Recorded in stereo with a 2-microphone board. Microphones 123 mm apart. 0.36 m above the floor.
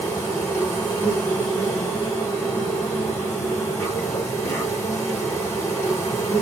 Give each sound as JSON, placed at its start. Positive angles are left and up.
{"t": 0.0, "sound": "an insect", "side_deg": 20, "distance_m": 8.0}